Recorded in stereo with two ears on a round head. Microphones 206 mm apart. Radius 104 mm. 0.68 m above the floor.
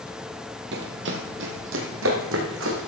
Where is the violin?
I don't hear a violin.